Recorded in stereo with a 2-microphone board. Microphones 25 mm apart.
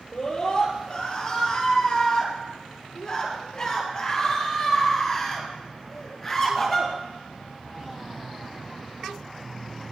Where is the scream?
35° left (ahead or behind), 8 m; by 6.9 s 5° left (ahead or behind), 7 m.